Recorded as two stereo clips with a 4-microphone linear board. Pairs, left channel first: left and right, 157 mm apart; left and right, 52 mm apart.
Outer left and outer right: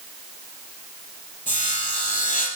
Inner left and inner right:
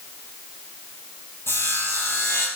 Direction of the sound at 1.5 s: 55° left (ahead or behind).